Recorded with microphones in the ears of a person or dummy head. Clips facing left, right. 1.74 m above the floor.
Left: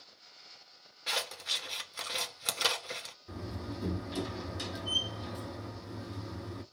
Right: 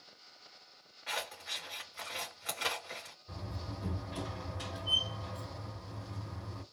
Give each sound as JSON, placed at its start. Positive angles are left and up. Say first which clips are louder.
{"t": 1.1, "sound": "scissors", "louder": "left 2 dB", "side_deg": 55, "distance_m": 1.2}
{"t": 3.3, "sound": "a door slam", "louder": "left 5 dB", "side_deg": 65, "distance_m": 2.5}